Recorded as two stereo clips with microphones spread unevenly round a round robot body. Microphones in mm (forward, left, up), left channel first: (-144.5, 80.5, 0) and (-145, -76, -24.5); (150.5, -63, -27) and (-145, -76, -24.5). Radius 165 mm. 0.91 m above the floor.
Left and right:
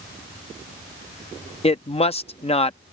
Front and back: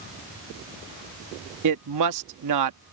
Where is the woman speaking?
145° left.